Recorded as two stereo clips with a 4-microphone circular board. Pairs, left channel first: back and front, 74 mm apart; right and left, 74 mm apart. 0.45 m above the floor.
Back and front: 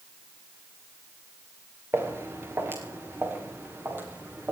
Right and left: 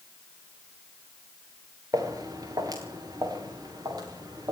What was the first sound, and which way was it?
Footsteps, 55° left.